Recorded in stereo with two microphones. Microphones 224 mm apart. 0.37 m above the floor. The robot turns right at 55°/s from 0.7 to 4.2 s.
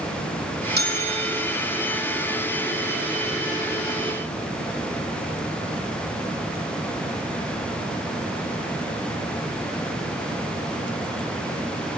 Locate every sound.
0.8 s a bell: 45° right, 2.5 m; by 1.5 s 10° right, 2.5 m